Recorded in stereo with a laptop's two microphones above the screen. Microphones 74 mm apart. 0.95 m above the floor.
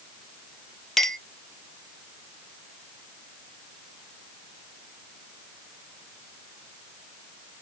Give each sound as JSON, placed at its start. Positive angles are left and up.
{"t": 1.0, "sound": "a clink", "side_deg": 5, "distance_m": 0.7}